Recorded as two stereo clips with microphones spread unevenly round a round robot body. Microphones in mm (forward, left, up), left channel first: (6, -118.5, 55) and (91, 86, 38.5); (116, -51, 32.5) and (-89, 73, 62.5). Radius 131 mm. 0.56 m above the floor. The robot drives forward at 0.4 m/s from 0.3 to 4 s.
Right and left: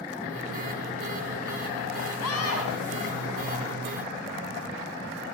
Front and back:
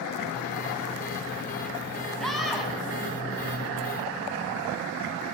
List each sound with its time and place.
2.2 s a scream: 120° right, 3.5 m